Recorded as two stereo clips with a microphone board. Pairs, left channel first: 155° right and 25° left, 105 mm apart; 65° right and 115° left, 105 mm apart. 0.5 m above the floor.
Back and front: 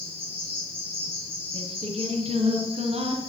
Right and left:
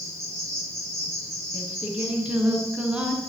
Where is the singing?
30° left, 4 m.